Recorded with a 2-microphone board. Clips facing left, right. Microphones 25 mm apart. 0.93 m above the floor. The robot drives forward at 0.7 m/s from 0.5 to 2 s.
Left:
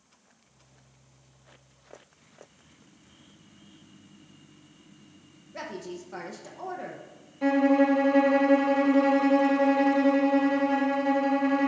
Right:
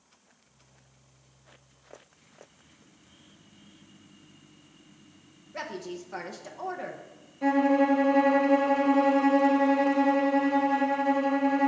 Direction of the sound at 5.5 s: 10° right (ahead or behind).